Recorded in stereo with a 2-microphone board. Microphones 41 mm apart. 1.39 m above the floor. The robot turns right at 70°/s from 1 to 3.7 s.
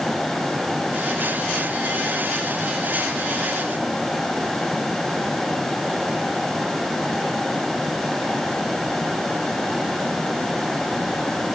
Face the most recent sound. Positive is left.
No sound to turn to.